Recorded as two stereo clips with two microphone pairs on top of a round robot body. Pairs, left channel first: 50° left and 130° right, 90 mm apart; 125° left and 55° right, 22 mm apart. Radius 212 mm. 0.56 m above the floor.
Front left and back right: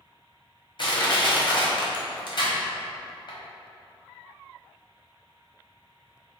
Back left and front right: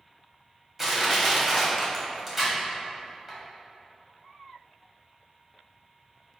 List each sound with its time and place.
0.8 s crushing: 25° left, 1.2 m